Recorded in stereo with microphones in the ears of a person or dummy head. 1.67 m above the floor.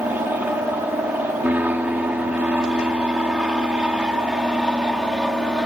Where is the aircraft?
15° right (ahead or behind); by 5.7 s 5° right (ahead or behind).